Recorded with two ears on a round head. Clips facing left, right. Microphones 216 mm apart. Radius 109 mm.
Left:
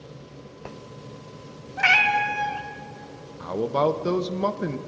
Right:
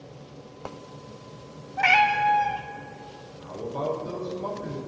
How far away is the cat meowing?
About 0.7 m.